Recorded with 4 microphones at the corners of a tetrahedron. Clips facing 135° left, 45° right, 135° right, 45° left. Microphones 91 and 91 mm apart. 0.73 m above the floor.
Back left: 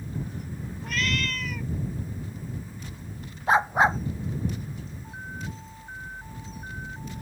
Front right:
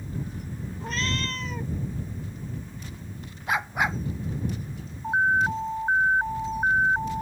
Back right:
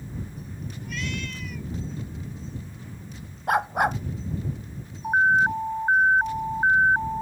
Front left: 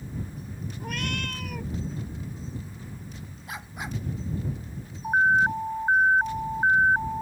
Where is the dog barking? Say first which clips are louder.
Back left 6 dB, back right 15 dB; 165° right.